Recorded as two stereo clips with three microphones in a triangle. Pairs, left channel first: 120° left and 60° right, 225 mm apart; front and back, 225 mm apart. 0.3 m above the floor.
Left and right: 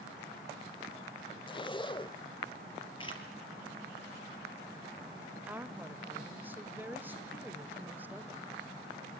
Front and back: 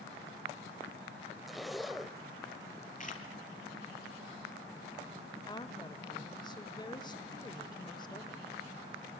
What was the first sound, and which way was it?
A zipper, 90° left.